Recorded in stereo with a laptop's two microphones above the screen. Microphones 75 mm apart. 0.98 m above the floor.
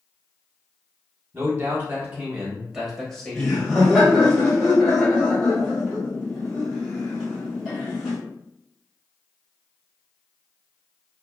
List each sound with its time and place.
1.3 s a man speaking: 45° right (ahead or behind), 1.3 m; by 4.3 s 40° left (ahead or behind), 0.9 m
3.4 s laughter: 5° right (ahead or behind), 0.9 m